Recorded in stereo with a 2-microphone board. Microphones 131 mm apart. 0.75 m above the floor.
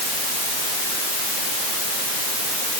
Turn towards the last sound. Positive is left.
No sound to turn to.